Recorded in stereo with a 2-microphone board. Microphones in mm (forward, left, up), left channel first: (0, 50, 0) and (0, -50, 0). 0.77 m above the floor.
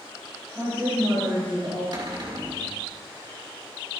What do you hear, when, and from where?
0.6 s a woman speaking: 30° right (ahead or behind), 5 m
1.9 s a cupboard door: 50° right (ahead or behind), 2.5 m